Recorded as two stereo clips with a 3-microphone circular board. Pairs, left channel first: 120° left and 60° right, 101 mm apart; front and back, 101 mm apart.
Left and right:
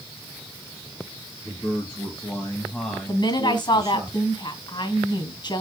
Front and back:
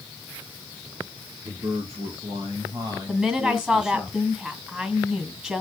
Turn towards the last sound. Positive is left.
turn(degrees=105)